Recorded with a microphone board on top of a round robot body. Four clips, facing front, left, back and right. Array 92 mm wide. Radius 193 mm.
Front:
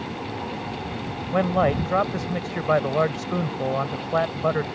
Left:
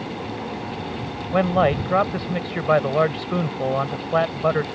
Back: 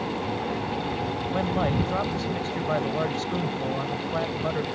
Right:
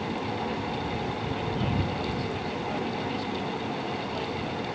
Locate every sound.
1.3 s a man speaking: 65° left